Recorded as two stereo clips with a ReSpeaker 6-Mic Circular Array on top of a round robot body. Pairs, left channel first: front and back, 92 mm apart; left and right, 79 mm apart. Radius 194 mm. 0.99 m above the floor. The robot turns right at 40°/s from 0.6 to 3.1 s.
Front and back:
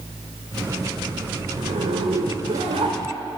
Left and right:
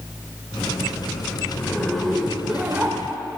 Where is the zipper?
155° left, 1.0 m; by 3.0 s 145° right, 1.0 m.